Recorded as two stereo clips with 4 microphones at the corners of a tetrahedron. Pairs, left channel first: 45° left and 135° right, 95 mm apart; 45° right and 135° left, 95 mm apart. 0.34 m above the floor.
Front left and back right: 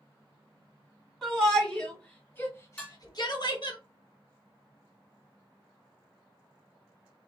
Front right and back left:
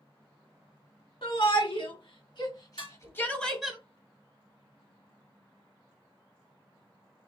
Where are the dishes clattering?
30° right, 2.5 m.